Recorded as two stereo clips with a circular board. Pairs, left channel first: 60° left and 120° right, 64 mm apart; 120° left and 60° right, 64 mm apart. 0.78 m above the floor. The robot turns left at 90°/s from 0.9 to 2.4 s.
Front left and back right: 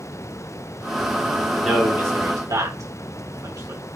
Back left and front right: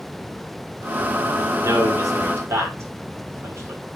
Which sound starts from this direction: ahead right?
A man speaking, at 1.6 s.